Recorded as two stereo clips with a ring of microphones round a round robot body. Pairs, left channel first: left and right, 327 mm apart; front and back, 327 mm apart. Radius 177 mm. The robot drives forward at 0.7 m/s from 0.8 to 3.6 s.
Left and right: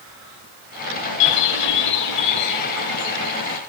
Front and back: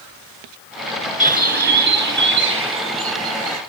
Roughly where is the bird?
Behind left.